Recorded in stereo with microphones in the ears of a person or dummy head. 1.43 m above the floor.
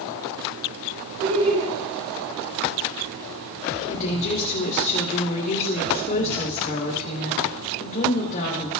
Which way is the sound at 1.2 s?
80° right.